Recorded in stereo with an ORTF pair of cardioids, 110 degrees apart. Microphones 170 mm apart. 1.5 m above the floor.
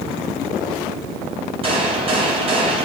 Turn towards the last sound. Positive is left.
turn(degrees=-35)